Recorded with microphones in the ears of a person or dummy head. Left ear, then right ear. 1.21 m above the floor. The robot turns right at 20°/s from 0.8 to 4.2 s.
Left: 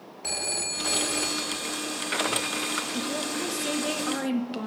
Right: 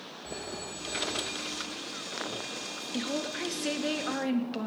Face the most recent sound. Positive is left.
turn(degrees=0)  # may be behind; listen again after turning